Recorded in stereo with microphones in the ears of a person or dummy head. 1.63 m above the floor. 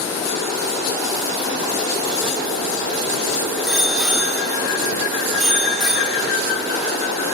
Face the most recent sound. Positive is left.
turn(degrees=5)  # may be behind; listen again after turning